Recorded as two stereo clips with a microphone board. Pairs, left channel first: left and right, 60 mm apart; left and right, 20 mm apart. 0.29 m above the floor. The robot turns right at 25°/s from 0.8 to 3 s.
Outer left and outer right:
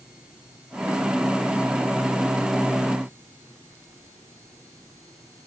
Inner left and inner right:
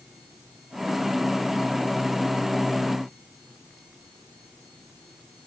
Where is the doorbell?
I don't hear a doorbell.